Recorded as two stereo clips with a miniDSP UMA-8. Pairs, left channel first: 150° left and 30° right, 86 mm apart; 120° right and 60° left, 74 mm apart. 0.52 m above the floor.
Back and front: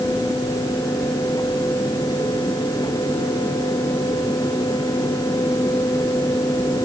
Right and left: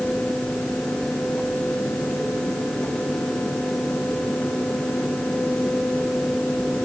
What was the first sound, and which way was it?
Only background noise.